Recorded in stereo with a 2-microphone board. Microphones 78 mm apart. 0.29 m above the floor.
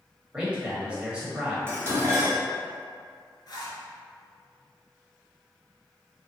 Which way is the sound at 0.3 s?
15° right (ahead or behind).